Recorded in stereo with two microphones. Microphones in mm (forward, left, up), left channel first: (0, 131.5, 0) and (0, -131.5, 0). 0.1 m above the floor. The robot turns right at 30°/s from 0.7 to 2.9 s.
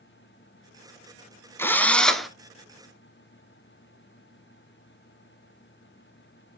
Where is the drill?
10° left (ahead or behind), 0.7 m; by 2.3 s centre (ahead or behind), 0.7 m.